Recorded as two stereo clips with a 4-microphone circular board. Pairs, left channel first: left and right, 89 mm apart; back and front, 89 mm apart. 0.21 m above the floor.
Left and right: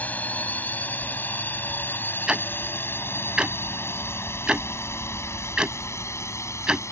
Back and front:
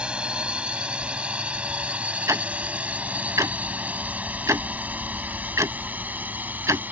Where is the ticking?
20° right.